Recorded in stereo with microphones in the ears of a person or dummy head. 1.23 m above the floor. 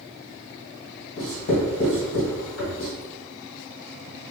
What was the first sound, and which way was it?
Writing, 50° left (ahead or behind).